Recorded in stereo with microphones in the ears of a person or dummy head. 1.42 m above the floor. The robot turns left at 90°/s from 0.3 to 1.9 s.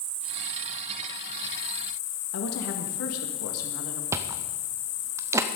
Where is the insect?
110° right, 1.2 m; by 5.6 s 105° left, 1.2 m.